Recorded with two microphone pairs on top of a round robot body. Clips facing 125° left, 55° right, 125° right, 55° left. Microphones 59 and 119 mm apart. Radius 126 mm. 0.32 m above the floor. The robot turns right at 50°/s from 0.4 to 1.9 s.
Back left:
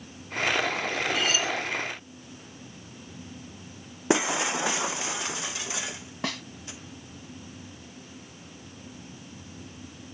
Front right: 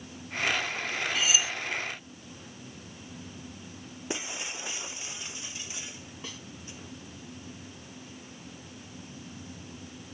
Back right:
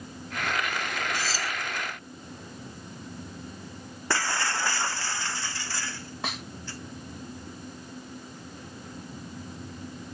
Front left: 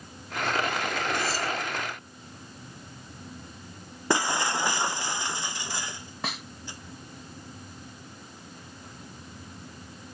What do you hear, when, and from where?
1.1 s cutlery clinking: 145° right; by 1.5 s 125° right
4.1 s breaking glass: 130° left
6.2 s a snare drum: 145° left